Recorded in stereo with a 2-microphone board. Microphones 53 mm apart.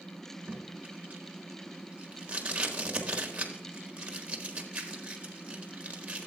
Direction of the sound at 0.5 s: 20° right (ahead or behind).